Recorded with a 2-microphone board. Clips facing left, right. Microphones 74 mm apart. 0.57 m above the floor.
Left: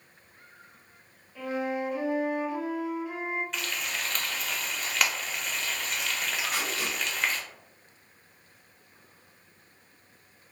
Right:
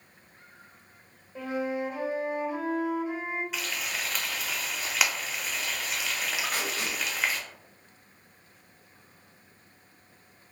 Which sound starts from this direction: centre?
Frying, at 3.5 s.